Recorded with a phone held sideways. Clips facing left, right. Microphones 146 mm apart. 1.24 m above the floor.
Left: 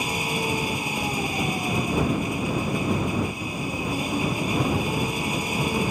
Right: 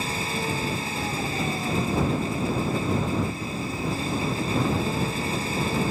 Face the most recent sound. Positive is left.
turn(degrees=15)  # may be behind; listen again after turning